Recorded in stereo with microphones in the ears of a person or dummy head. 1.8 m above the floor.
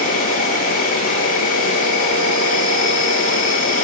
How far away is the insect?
About 3.5 m.